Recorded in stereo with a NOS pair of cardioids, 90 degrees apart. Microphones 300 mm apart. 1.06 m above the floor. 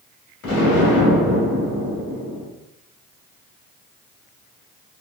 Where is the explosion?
60° left, 1.9 m.